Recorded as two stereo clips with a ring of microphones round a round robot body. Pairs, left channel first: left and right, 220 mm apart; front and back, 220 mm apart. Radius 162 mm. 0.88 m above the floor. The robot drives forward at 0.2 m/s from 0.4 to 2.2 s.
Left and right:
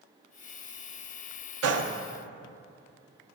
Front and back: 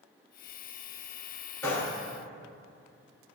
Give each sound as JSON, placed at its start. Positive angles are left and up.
{"t": 1.6, "sound": "a gunshot", "azimuth_deg": -85, "distance_m": 0.8}